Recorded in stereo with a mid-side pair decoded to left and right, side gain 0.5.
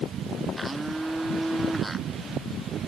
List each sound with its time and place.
0.6 s a blender: 10° right